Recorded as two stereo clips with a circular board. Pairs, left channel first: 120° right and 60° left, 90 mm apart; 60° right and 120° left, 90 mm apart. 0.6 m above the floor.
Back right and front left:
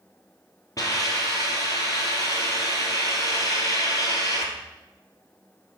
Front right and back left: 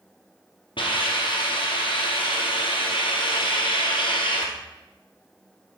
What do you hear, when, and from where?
0.8 s a hiss: 70° right, 2 m